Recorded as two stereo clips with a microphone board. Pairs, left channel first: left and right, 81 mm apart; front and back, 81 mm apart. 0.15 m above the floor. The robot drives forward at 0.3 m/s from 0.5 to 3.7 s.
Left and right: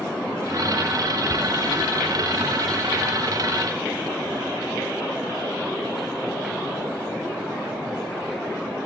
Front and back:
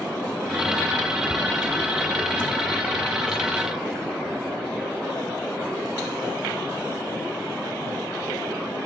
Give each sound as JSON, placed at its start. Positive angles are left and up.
{"t": 1.3, "sound": "ticking", "azimuth_deg": -90, "distance_m": 0.9}